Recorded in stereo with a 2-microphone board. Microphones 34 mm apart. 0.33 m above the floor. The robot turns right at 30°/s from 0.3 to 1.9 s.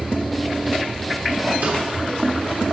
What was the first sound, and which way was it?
A snare drum, 70° right (ahead or behind).